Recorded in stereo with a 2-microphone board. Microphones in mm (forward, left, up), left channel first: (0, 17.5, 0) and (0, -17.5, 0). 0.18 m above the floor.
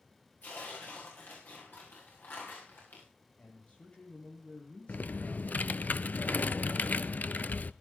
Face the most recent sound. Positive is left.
turn(degrees=55)  # may be behind; listen again after turning